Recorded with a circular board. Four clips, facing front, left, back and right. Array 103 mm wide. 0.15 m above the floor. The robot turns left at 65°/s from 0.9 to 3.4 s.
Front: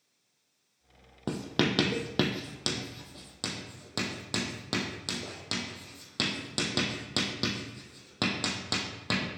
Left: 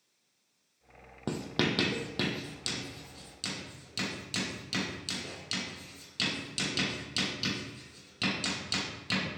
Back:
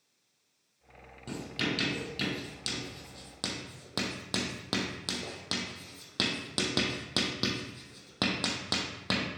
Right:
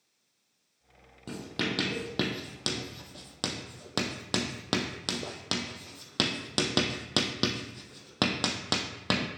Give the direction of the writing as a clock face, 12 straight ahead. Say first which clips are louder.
Left 3 dB, front 6 dB; 11 o'clock.